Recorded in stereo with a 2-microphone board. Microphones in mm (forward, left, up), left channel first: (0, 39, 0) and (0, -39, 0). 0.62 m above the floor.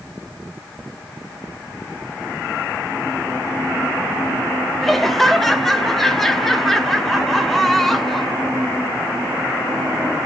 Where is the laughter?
5° left (ahead or behind), 0.9 m.